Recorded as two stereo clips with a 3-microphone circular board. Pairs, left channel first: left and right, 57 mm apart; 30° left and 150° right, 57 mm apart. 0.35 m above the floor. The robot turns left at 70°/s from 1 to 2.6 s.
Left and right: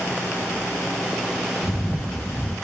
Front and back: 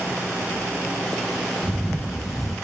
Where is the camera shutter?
90° left, 5.5 m; by 2.5 s 30° left, 5.5 m.